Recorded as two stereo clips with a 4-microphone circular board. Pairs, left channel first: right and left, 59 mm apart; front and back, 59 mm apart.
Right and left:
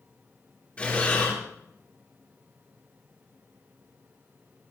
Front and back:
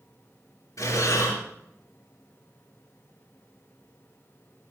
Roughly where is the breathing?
Ahead right.